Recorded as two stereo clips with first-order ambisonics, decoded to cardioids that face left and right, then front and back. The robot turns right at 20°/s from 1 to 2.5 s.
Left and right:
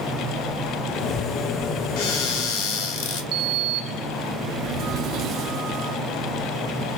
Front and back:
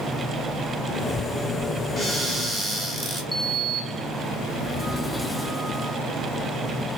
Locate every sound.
2.0 s a cupboard door: 90° left, 1.9 m; by 3.2 s 100° left, 1.9 m
3.3 s a sliding door: 85° right, 0.6 m